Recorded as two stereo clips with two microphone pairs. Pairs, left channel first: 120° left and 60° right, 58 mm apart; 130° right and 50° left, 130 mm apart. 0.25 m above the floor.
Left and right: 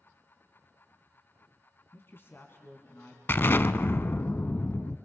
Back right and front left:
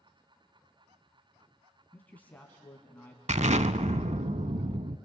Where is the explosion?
70° left, 0.5 m.